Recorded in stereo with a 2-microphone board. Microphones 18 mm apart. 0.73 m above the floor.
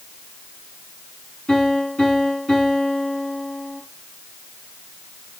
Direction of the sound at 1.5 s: 45° left (ahead or behind).